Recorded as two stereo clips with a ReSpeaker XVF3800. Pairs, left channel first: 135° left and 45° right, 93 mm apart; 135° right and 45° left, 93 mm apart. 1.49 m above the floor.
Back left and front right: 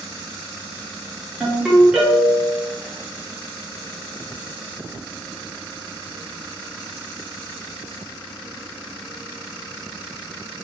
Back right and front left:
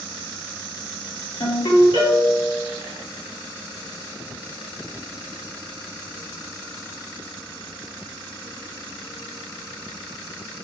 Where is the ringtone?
130° right, 1.9 m.